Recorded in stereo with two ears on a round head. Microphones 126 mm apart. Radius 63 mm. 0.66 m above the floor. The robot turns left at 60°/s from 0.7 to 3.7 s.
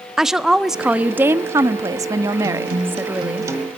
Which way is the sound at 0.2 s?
5° right (ahead or behind).